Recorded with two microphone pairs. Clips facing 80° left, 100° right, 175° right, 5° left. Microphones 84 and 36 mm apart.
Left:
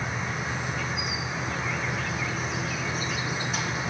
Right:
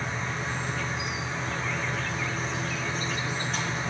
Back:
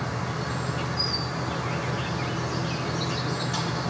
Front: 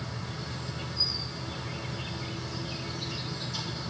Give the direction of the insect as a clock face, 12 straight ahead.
6 o'clock.